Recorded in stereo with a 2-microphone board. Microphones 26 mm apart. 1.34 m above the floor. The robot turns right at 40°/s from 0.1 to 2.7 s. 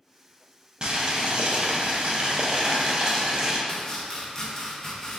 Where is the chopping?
20° left (ahead or behind), 0.7 m.